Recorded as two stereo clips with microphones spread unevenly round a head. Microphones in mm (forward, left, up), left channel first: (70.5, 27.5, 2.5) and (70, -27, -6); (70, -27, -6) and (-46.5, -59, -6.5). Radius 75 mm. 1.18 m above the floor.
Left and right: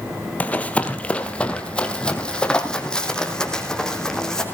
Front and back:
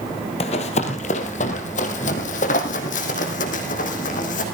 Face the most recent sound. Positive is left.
turn(degrees=15)